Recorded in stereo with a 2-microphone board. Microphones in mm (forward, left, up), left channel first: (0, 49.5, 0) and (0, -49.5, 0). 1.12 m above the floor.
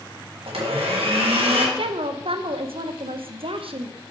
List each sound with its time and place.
0.5 s a blender: 80° right, 1.6 m
1.8 s a woman speaking: 75° right (ahead or behind), 0.7 m